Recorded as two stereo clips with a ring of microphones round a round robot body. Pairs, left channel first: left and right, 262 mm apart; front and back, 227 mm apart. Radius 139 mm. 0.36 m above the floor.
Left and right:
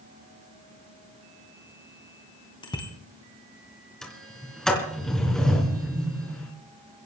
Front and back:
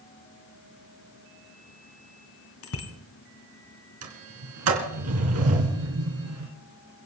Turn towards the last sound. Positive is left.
turn(degrees=180)